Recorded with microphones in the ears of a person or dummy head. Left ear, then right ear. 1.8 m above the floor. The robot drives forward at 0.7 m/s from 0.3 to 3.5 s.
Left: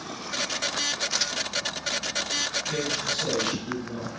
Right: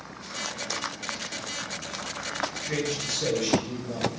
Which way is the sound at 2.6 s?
45° right (ahead or behind).